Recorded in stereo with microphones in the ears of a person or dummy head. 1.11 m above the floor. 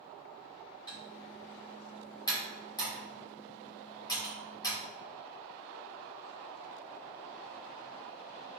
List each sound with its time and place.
0.9 s typing on a keyboard: 25° left (ahead or behind), 1.5 m